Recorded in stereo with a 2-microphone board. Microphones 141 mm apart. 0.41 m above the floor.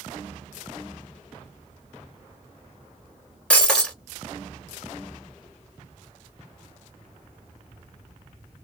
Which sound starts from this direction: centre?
Breaking glass, at 3.5 s.